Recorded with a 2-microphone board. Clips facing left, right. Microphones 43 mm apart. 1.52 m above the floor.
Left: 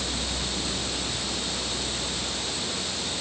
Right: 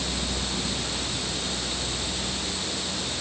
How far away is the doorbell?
I don't hear a doorbell.